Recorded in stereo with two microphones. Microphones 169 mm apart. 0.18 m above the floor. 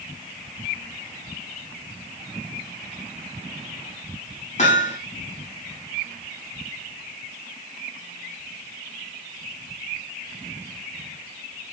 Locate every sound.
4.6 s hammering: 45° left (ahead or behind), 5.5 m